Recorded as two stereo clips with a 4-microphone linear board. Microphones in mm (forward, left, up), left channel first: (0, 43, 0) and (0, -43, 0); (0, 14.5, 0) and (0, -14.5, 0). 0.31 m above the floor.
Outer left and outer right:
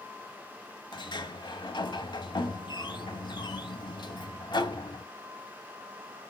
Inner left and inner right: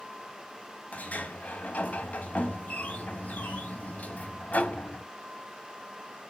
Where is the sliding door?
65° left (ahead or behind), 1.0 m.